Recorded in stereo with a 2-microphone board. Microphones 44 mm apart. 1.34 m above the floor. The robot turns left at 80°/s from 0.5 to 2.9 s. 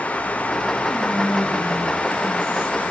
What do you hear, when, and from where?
0.9 s whispering: 150° right, 2.5 m; by 2.8 s 60° left, 2.5 m